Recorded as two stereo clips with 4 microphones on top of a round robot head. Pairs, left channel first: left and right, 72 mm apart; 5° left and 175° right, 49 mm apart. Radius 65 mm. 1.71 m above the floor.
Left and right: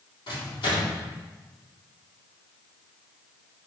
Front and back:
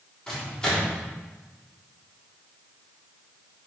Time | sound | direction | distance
0.3 | a microwave | 80° left | 4 m